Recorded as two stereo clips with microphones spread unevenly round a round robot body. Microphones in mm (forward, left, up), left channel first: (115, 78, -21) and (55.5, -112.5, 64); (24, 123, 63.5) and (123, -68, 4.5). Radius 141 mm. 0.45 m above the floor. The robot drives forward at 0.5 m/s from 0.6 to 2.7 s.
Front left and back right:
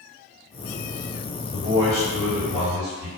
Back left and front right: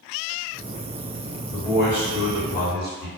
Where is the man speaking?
160° left, 1.6 m; by 3.1 s 165° left, 2 m.